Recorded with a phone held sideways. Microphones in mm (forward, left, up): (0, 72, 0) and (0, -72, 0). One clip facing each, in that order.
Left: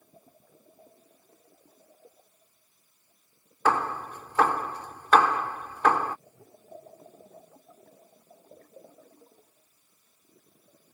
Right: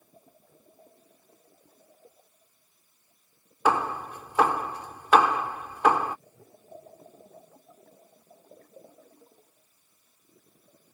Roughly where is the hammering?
Centre.